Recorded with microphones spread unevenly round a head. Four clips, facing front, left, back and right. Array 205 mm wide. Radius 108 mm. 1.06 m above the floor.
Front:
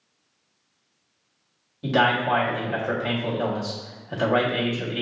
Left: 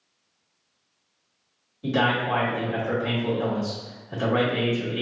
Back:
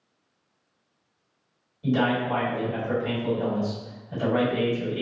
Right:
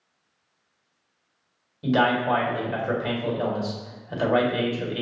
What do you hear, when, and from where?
1.8 s a man speaking: 25° right, 2.0 m